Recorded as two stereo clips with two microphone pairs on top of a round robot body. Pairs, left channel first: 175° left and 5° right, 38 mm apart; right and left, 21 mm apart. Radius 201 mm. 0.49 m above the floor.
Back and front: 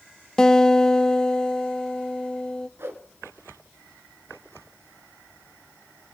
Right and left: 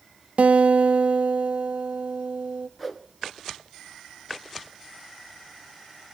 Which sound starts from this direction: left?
A guitar, at 0.4 s.